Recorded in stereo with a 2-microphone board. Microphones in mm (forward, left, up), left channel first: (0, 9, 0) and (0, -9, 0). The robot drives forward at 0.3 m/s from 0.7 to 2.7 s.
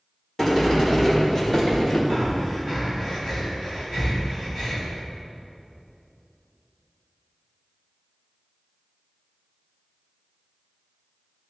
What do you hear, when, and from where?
0.4 s a sliding door: 20° left (ahead or behind), 2 m; by 2.0 s 15° left (ahead or behind), 2.5 m
2.1 s breathing: centre (ahead or behind), 3 m